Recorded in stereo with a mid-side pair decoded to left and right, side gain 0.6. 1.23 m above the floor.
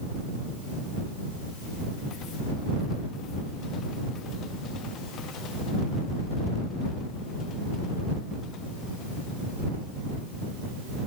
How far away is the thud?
I don't hear a thud.